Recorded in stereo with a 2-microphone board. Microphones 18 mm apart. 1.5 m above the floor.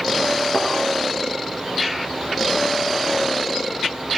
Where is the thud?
50° left (ahead or behind), 9 m.